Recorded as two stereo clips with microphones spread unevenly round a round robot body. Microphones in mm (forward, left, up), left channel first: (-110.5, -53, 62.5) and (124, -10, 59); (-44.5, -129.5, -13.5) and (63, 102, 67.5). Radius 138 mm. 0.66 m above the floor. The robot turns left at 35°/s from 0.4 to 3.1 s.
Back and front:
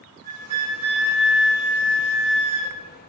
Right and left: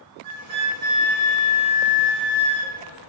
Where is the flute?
40° left, 1.5 m; by 2.8 s 45° right, 1.5 m.